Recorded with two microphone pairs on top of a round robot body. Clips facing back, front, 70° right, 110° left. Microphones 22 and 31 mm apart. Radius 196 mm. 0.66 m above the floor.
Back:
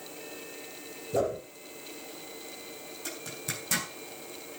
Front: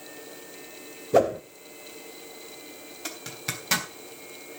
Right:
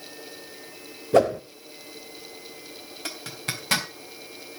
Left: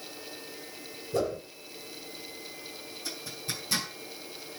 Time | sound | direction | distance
1.1 | a whoosh | 35° right | 0.9 m
3.0 | a zipper | 50° right | 3.5 m